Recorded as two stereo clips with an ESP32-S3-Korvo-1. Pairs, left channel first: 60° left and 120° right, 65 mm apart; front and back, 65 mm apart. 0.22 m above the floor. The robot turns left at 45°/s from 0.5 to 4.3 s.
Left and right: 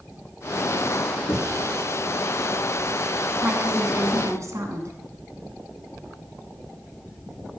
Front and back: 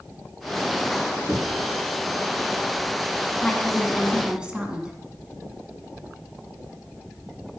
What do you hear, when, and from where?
1.3 s knocking: 95° left, 1.8 m; by 1.6 s 85° left, 1.8 m
3.4 s a woman speaking: 65° right, 2 m; by 4.9 s 105° right, 2 m